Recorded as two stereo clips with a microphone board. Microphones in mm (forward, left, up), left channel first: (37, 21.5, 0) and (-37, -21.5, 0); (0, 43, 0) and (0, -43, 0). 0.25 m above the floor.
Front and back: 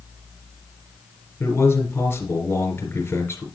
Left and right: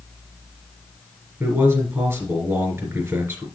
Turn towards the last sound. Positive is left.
turn(degrees=-30)